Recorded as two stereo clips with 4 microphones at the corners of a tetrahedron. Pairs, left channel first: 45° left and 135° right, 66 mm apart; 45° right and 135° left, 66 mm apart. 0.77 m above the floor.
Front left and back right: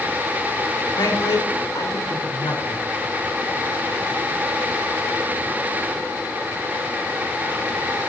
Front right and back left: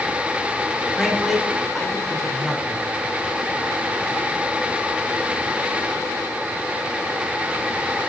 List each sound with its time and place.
1.0 s a man speaking: 45° left, 1.6 m